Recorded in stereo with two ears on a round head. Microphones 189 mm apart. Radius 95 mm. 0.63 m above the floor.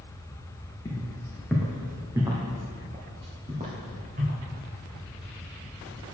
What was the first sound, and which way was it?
Footsteps, 15° left (ahead or behind).